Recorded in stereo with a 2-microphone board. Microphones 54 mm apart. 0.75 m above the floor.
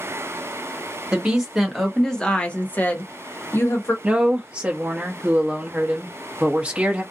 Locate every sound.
1.1 s a woman speaking: 15° right (ahead or behind), 1.0 m; by 3.9 s 50° left (ahead or behind), 1.3 m
4.0 s a woman speaking: 20° right (ahead or behind), 0.8 m